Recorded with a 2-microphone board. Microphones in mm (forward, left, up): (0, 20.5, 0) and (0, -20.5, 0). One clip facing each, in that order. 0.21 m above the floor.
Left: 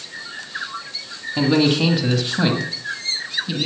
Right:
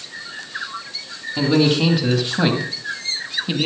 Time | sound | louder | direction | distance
1.4 | a man speaking | even | 15° left (ahead or behind) | 1.5 m